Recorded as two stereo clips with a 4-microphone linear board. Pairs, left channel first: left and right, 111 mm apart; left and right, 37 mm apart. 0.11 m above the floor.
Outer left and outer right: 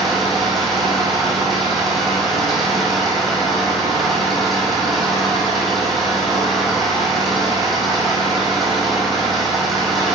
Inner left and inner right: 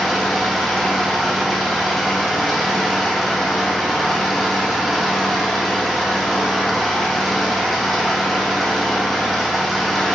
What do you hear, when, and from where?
0.0 s an engine running: centre (ahead or behind), 1.2 m